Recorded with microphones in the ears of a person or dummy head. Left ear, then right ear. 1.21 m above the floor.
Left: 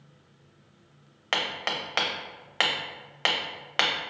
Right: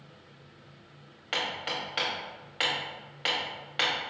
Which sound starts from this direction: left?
Hammering, at 1.3 s.